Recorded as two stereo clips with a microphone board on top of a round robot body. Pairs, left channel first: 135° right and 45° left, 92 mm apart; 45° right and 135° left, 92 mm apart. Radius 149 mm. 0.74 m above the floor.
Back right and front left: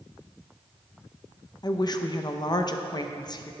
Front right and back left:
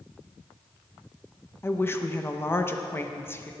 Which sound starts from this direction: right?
A woman speaking, at 1.6 s.